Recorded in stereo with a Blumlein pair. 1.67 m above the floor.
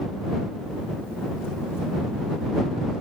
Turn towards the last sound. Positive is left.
No sound to turn to.